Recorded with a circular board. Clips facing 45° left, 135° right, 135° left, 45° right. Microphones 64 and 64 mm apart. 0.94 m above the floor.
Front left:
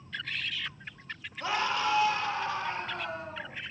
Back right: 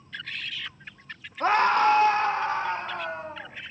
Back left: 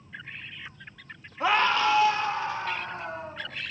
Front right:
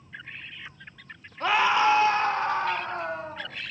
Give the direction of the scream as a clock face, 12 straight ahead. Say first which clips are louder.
Back right 9 dB, front right 1 dB; 5 o'clock.